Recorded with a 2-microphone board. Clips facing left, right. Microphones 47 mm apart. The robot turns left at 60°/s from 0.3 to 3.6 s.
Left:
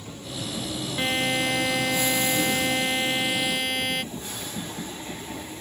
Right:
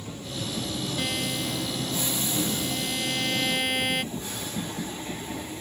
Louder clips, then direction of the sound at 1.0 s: Left 8 dB; 155° left.